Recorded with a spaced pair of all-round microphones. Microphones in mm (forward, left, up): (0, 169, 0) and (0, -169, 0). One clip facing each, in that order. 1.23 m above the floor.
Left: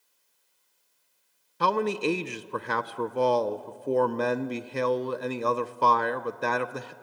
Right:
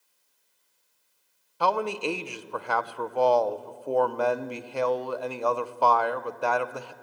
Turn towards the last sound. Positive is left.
turn(degrees=25)  # may be behind; listen again after turning